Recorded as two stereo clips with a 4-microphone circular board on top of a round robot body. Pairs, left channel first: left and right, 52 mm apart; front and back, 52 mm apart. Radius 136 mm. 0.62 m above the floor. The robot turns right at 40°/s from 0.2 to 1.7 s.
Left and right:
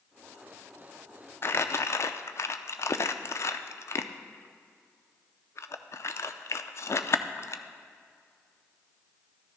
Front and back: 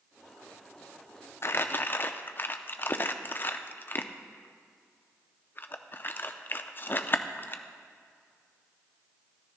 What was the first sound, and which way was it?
Crumpling, 45° left.